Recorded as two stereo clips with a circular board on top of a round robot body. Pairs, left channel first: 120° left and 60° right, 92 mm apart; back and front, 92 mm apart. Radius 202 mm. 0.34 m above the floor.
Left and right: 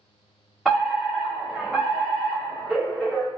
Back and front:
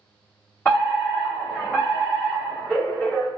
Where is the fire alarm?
150° right, 1.8 m.